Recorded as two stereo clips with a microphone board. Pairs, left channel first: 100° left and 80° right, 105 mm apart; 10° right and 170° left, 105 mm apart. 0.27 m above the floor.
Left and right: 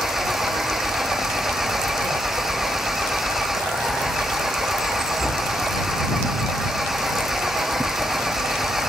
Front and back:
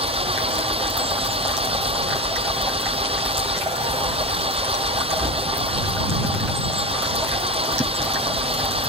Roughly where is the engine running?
Behind.